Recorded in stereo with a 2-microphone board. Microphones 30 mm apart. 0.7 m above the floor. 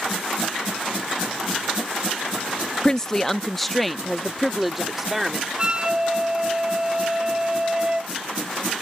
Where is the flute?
25° right (ahead or behind).